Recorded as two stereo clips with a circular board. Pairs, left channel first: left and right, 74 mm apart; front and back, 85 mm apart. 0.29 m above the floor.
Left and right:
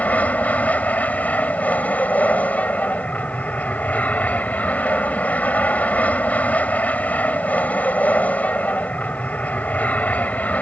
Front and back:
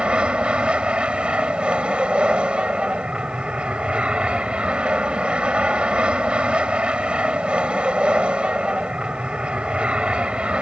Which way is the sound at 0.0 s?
120° left.